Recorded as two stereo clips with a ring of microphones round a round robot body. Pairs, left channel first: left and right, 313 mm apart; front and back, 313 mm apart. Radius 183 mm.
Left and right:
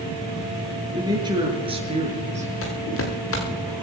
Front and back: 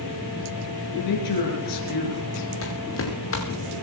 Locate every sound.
0.9 s a man speaking: 15° right, 7 m; by 2.5 s 25° right, 6 m
2.6 s footsteps: 45° left, 4.5 m